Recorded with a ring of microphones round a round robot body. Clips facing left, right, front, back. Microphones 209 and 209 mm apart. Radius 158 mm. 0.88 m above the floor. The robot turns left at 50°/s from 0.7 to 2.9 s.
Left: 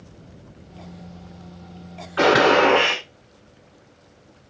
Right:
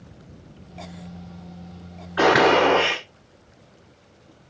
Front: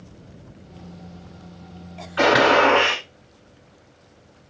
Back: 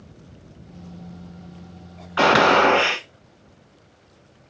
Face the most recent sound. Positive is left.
turn(degrees=125)